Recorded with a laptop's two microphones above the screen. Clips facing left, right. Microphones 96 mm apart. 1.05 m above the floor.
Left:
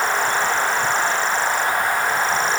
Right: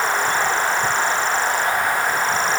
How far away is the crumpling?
I don't hear crumpling.